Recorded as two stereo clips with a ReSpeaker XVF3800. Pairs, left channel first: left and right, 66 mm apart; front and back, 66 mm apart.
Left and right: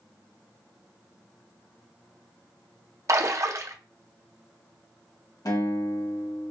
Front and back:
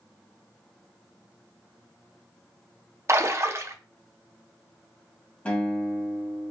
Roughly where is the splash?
Behind right.